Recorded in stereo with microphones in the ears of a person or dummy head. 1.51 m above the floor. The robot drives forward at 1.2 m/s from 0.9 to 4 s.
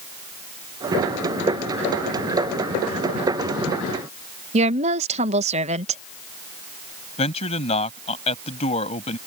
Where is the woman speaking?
40° right (ahead or behind).